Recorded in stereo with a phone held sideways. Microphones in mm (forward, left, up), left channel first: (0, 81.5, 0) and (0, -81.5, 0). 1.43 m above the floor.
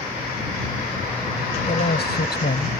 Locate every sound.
1.6 s a man speaking: 85° left